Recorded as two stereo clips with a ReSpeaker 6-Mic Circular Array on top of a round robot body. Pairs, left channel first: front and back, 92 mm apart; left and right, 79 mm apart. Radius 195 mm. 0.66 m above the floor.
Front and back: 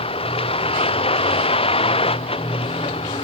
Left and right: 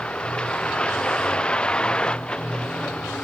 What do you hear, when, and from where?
0.0 s a vehicle: 10° left